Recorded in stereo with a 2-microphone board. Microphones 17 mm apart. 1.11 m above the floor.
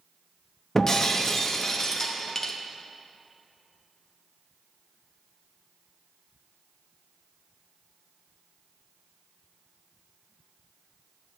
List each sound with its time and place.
0.8 s breaking glass: 35° left (ahead or behind), 0.8 m